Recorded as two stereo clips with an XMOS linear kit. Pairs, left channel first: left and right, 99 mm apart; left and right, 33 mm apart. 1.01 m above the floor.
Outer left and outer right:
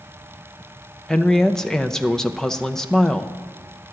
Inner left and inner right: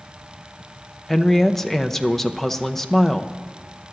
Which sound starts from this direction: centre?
A woman speaking, at 1.1 s.